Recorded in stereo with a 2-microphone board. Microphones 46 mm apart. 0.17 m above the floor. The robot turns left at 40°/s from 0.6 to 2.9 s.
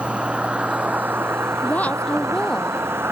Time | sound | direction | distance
0.0 | an insect | 25° right | ?
1.6 | a woman speaking | 45° left | ?